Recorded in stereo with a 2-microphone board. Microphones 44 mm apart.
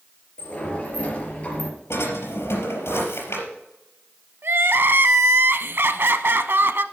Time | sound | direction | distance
0.4 | a sliding door | 30° left (ahead or behind) | 3.5 m
1.9 | a drawer | 75° left (ahead or behind) | 4 m
4.4 | crying | 65° right (ahead or behind) | 0.8 m